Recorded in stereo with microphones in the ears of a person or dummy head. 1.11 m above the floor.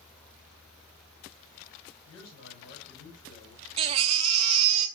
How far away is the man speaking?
About 5 m.